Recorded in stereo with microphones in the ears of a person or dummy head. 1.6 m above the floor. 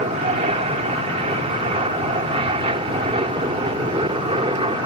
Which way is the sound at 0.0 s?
35° right (ahead or behind).